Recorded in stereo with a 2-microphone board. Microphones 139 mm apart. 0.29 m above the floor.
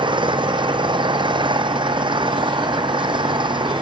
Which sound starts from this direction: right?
An engine running, at 0.0 s.